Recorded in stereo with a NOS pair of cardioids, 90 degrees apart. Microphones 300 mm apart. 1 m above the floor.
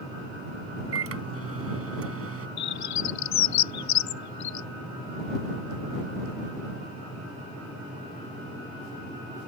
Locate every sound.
0.9 s a microwave: 50° right
2.6 s a bird: 65° left